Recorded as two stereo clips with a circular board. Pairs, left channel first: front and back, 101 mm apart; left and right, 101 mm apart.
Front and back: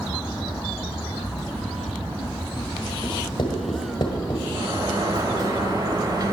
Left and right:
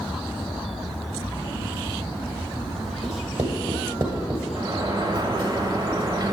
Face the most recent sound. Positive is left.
turn(degrees=-135)